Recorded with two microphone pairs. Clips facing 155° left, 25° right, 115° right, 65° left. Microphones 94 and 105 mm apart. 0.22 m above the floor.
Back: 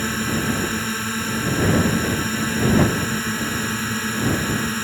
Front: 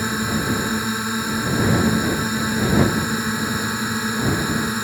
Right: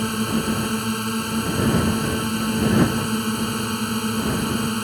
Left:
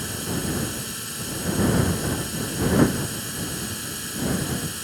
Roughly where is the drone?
Right.